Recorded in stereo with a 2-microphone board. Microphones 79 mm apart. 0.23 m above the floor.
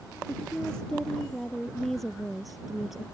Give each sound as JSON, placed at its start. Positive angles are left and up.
{"t": 0.3, "sound": "a woman speaking", "side_deg": 10}